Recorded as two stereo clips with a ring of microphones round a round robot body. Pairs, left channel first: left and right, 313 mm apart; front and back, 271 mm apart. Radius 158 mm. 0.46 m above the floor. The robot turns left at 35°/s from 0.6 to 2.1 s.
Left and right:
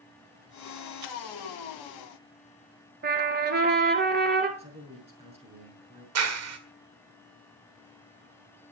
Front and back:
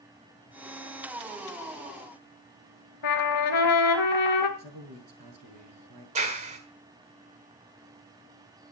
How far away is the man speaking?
About 6 m.